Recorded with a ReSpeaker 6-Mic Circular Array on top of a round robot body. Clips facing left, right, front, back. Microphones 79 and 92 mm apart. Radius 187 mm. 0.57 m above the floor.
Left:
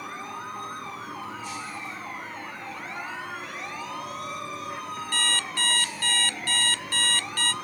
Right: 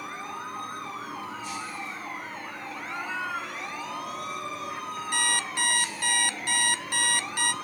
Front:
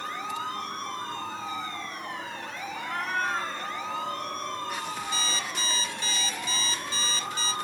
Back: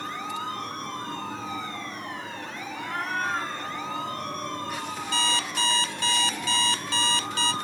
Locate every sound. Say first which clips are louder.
2.8 s a cat meowing: right 4 dB, even; 95° right, 5 m
5.1 s an alarm clock: right 1 dB, back 5 dB; 160° right, 0.5 m